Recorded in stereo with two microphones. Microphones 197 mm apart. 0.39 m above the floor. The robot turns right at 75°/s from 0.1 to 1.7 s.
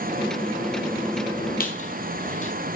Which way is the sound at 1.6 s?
50° left (ahead or behind).